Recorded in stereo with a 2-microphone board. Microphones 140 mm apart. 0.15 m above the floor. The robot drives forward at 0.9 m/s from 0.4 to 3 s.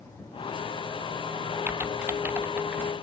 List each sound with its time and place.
1.7 s typing on a keyboard: 10° right (ahead or behind)